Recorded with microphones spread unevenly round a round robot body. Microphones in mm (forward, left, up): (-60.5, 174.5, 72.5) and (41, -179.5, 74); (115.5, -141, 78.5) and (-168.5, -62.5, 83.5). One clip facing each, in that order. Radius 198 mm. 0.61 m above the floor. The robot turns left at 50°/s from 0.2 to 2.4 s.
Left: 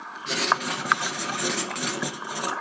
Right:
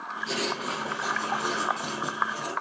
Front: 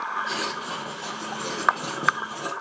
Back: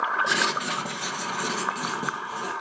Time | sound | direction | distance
0.3 | writing | straight behind | 1.8 m